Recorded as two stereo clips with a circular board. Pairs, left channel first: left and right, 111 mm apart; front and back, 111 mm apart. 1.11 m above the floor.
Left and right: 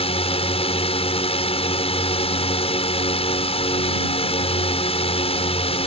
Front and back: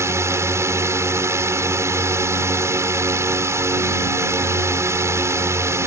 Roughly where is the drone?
Behind left.